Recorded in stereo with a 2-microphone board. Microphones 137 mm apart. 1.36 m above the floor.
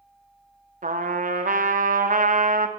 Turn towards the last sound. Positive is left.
turn(degrees=-80)